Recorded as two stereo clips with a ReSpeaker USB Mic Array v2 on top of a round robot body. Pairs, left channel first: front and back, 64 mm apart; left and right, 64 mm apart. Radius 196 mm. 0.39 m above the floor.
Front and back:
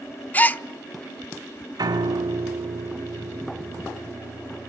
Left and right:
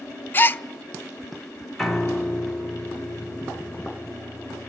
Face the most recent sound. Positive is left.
turn(degrees=180)